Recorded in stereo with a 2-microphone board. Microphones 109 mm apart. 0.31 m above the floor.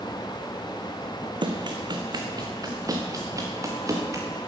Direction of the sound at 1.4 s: 50° right (ahead or behind).